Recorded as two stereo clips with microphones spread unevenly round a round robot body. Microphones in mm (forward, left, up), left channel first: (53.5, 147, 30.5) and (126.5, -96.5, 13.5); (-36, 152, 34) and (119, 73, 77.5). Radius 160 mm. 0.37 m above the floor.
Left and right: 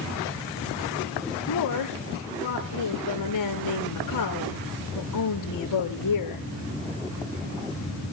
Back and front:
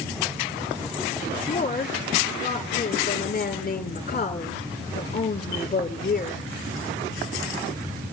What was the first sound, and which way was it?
A woman speaking, 120° left.